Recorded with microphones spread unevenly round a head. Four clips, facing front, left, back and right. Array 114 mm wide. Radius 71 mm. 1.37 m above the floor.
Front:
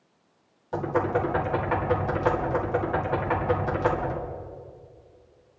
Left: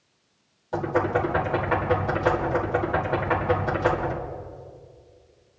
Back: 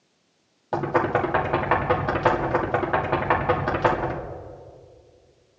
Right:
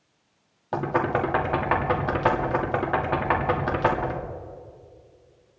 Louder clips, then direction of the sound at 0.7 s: Even, back 3 dB; 155° right.